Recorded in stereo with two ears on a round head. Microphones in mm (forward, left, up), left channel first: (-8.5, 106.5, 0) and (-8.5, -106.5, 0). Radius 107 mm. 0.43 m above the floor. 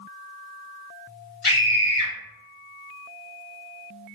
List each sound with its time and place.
1.4 s a scream: 55° left (ahead or behind), 2.0 m